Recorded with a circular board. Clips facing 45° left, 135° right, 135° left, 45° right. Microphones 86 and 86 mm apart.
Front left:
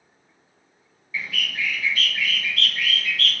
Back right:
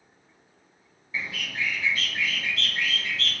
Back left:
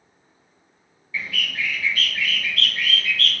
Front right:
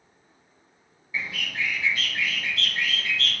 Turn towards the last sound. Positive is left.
turn(degrees=-90)